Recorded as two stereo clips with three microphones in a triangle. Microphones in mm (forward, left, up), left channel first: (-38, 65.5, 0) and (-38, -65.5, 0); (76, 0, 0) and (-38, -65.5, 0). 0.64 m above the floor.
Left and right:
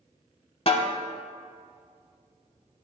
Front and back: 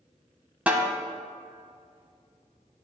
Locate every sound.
0.7 s a snare drum: 130° left, 1.0 m